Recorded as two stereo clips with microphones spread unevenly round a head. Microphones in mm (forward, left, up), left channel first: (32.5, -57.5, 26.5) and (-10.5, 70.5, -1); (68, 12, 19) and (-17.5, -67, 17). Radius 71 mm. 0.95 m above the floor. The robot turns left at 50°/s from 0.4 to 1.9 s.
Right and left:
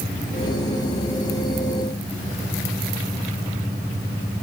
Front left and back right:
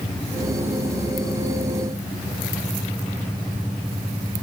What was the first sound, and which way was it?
Only background noise.